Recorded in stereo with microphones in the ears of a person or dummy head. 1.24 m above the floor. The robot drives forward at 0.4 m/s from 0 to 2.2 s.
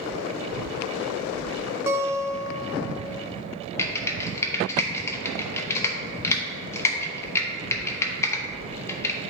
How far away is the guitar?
About 0.6 m.